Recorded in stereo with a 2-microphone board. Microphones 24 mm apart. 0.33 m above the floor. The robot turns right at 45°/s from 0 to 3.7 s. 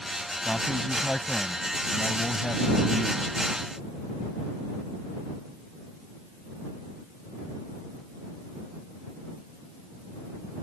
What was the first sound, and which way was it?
A man speaking, 10° left.